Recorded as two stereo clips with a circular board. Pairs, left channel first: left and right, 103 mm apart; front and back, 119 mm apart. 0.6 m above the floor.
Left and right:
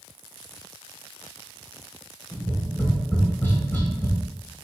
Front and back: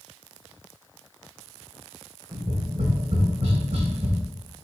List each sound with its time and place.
2.3 s tapping: 155° left, 2 m